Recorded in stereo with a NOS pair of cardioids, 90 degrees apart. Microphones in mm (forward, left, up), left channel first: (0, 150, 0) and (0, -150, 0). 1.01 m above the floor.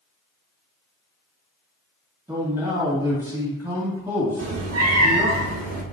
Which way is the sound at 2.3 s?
5° right.